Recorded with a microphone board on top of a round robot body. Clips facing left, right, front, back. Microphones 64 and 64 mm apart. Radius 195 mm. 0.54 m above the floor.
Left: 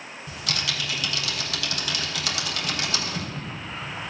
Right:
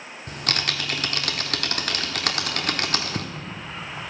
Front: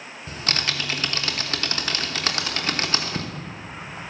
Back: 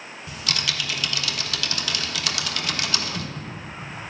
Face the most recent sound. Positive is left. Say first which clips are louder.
# right 3 dB, front 2 dB
turn(degrees=-50)